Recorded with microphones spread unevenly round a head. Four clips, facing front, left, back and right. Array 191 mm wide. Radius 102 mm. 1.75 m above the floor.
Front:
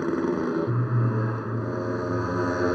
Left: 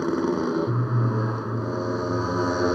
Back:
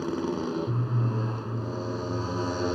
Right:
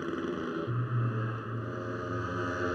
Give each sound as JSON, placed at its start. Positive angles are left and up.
{"t": 0.0, "sound": "a motorcycle", "azimuth_deg": 50}